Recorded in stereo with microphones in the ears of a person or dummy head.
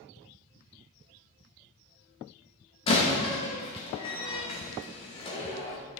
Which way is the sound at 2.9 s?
25° left (ahead or behind).